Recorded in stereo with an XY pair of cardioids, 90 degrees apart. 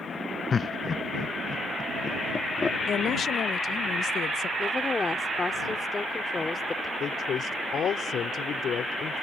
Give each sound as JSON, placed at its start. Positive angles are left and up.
{"t": 0.5, "sound": "laughter", "azimuth_deg": 45}
{"t": 2.9, "sound": "a woman speaking", "azimuth_deg": 65}
{"t": 4.6, "sound": "a woman speaking", "azimuth_deg": 35}
{"t": 7.0, "sound": "a man speaking", "azimuth_deg": 65}